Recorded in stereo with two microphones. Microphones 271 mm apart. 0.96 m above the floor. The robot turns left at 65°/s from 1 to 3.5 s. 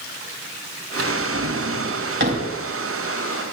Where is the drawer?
55° right (ahead or behind), 4 m; by 2.5 s 25° right (ahead or behind), 4 m.